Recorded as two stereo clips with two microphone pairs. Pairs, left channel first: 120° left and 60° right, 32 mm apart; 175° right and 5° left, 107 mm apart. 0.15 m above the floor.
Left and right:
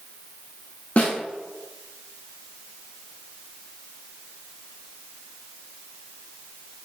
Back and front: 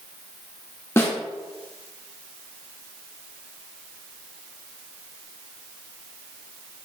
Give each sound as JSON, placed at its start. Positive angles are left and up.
{"t": 1.0, "sound": "a snare drum", "azimuth_deg": 130, "distance_m": 0.7}